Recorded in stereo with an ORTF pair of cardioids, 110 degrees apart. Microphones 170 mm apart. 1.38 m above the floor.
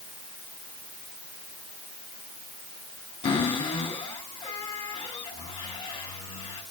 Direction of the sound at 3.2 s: 30° left.